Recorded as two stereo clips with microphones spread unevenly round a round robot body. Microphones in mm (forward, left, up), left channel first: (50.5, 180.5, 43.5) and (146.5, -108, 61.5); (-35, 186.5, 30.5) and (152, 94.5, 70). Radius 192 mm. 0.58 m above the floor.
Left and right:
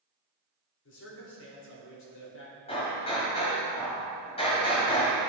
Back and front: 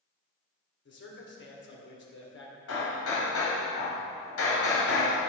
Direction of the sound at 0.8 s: 160° left.